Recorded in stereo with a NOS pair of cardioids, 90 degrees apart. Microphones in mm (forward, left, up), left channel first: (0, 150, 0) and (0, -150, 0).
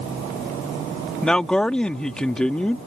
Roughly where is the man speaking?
Ahead.